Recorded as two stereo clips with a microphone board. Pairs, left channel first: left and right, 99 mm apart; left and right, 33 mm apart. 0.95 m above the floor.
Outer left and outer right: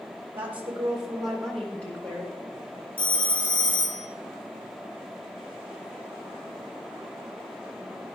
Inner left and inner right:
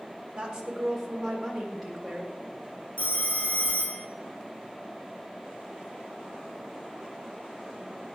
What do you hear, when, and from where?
0.3 s a woman speaking: 20° right (ahead or behind), 2.5 m; by 2.3 s 20° left (ahead or behind), 4 m
3.0 s a phone ringing: 55° left (ahead or behind), 1.0 m